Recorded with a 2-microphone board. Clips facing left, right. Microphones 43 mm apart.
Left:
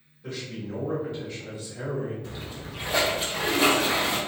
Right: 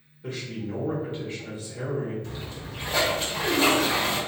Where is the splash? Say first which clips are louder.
Even; 5° left (ahead or behind), 1.6 m.